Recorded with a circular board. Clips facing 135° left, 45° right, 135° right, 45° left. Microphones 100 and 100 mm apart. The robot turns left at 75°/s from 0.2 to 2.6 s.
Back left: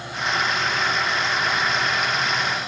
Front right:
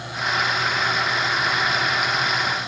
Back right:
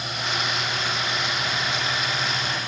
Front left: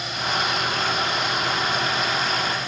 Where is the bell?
I don't hear a bell.